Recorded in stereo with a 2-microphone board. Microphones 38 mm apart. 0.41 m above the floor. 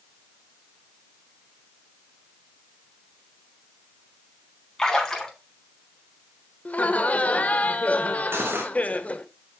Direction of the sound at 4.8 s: 15° left (ahead or behind).